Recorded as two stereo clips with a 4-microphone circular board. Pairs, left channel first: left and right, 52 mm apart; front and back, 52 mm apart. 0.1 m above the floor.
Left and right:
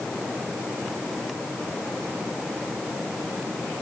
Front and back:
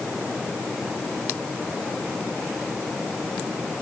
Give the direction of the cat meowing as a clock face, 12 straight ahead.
No cat meowing in this recording.